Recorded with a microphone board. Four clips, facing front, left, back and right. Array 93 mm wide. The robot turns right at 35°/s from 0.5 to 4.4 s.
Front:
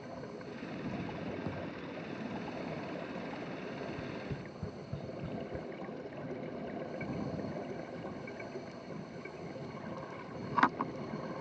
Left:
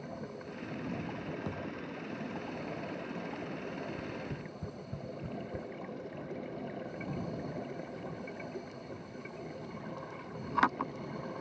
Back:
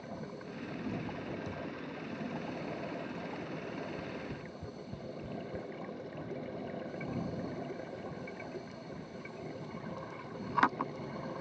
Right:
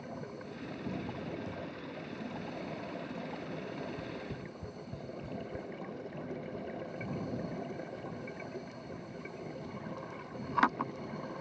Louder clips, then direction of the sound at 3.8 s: Left 1 dB, even; 10° left.